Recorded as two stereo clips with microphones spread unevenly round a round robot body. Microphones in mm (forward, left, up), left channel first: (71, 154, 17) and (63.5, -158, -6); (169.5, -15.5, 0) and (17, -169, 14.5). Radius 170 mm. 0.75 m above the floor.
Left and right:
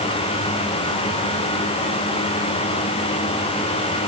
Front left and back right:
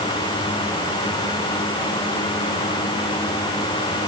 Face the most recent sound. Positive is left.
No sound to turn to.